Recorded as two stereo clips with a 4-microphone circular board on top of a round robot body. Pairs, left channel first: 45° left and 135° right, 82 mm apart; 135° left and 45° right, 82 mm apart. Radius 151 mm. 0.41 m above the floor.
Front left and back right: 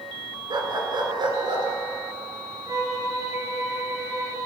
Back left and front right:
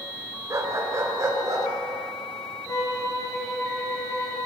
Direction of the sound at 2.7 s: Straight behind.